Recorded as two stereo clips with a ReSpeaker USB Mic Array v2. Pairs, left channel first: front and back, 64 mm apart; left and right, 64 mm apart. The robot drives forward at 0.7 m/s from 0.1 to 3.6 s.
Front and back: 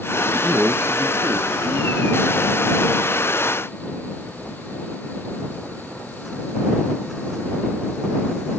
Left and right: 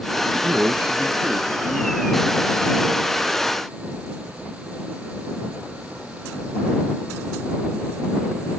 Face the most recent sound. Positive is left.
turn(degrees=-170)